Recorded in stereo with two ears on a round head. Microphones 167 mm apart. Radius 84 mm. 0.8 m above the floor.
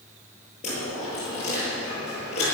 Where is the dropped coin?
35° left (ahead or behind), 7.5 m.